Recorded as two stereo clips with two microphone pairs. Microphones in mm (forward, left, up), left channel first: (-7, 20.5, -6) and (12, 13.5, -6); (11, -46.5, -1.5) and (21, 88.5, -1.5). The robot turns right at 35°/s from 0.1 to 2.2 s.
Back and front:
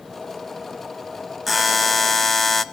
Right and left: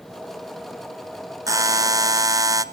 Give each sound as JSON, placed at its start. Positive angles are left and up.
{"t": 1.5, "sound": "a buzzer", "azimuth_deg": 65, "distance_m": 0.7}